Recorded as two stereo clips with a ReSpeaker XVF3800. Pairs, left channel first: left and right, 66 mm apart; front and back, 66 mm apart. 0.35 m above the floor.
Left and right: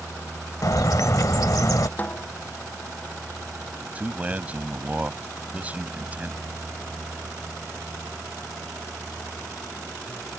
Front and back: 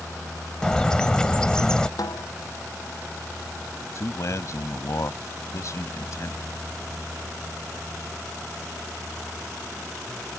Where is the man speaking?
25° right.